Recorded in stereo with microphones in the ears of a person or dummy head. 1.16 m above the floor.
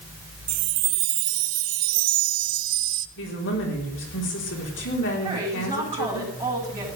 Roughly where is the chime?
Right.